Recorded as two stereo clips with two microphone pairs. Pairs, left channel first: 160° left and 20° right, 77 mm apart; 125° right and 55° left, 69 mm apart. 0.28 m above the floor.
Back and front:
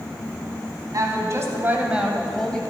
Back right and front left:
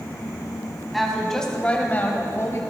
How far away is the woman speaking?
About 2.5 m.